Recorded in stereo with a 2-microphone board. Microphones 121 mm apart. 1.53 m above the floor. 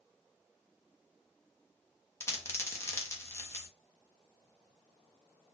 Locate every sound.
2.2 s a dropped coin: 20° left (ahead or behind), 0.9 m